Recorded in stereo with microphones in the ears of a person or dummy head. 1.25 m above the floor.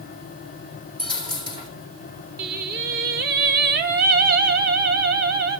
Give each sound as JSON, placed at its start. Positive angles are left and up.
{"t": 1.0, "sound": "a dropped coin", "side_deg": -25, "distance_m": 4.5}
{"t": 2.4, "sound": "singing", "side_deg": -55, "distance_m": 1.1}